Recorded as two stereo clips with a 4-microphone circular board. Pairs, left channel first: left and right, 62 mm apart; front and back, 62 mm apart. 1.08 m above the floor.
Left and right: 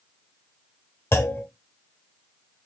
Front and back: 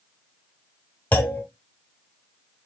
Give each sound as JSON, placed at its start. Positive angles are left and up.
{"t": 1.1, "sound": "a clunk", "azimuth_deg": 55, "distance_m": 1.0}